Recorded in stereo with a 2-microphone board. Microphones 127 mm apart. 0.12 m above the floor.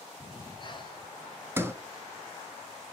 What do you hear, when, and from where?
0.2 s breathing: 40° left (ahead or behind), 1.1 m
1.6 s a sliding door: 20° right (ahead or behind), 0.7 m